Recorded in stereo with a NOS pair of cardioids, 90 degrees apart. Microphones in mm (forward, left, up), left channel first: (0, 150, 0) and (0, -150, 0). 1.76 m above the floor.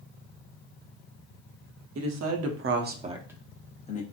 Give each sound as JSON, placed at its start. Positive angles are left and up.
{"t": 1.9, "sound": "a man speaking", "azimuth_deg": -65, "distance_m": 1.1}